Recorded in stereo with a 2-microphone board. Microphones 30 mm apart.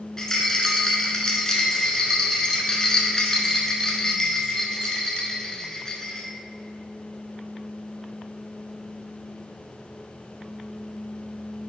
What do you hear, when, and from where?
0.2 s a rattle: 20° left (ahead or behind), 1.1 m